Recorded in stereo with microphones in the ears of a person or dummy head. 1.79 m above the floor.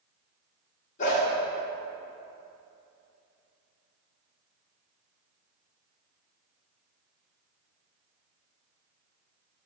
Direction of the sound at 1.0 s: 45° left (ahead or behind).